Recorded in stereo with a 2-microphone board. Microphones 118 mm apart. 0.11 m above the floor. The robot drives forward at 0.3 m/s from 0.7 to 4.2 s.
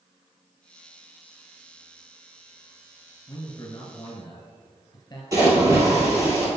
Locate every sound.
3.3 s a man speaking: 30° left (ahead or behind), 1.9 m
5.3 s a splash: 25° right (ahead or behind), 2 m